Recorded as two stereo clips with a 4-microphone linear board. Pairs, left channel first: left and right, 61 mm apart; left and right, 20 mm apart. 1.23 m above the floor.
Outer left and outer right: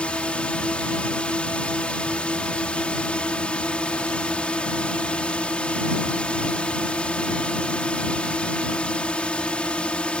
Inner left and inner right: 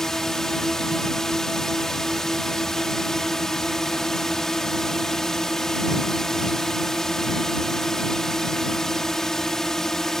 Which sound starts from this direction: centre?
A drone, at 0.0 s.